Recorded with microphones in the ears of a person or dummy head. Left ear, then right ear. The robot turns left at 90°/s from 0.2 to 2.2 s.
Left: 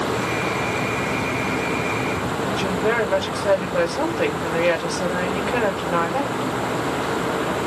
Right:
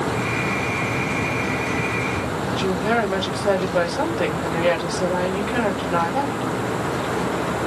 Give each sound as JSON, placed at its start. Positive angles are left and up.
{"t": 2.5, "sound": "a woman speaking", "side_deg": 30, "distance_m": 1.3}